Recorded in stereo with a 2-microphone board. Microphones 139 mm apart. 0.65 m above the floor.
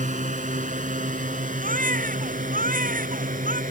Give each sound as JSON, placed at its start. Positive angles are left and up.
{"t": 0.0, "sound": "a drone", "side_deg": -65}
{"t": 1.6, "sound": "a baby crying", "side_deg": -80}